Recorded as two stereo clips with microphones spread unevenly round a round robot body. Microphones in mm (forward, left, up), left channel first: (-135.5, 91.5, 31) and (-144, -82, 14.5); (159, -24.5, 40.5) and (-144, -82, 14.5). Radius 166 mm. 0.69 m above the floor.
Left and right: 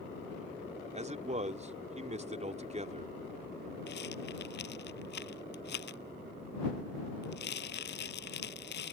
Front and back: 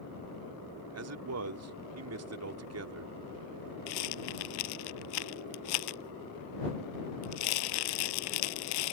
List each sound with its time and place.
0.9 s a man speaking: 140° right
3.9 s a rattle: 30° left